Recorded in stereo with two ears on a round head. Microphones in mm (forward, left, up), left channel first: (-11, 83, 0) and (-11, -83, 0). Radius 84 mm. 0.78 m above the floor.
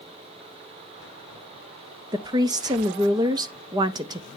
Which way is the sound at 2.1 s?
20° right (ahead or behind).